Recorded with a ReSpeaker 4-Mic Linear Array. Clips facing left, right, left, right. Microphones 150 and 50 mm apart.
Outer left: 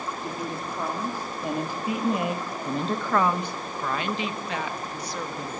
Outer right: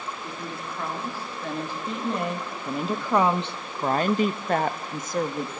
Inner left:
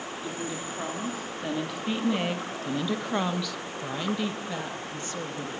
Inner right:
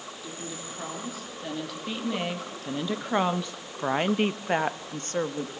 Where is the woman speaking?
20° left (ahead or behind), 3 m; by 5.5 s 45° right (ahead or behind), 1.9 m.